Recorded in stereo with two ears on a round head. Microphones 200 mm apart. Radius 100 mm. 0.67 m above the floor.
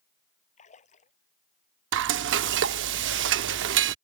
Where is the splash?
30° left (ahead or behind).